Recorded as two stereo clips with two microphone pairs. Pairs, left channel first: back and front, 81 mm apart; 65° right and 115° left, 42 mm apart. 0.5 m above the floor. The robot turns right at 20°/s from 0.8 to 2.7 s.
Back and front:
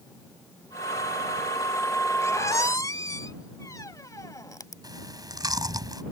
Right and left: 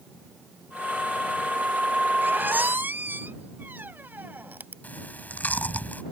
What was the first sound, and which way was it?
A squeak, 135° left.